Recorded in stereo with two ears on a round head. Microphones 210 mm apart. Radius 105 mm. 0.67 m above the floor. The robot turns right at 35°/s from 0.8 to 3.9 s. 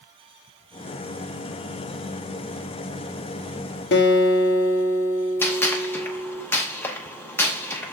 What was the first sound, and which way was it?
A guitar, 45° left (ahead or behind).